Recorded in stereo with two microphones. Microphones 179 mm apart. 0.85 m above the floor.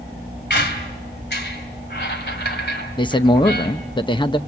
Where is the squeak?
75° left (ahead or behind), 2 m.